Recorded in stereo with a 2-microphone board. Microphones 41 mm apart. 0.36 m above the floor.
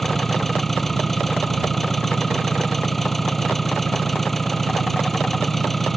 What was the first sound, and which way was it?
An engine running, 5° left (ahead or behind).